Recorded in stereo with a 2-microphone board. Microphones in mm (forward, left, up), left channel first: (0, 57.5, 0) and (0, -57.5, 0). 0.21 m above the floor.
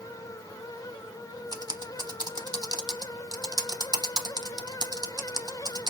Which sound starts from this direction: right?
Typing on a keyboard, at 1.5 s.